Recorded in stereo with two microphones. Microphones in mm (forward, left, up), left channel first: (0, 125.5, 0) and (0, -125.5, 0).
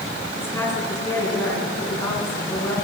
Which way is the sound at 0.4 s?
10° left (ahead or behind).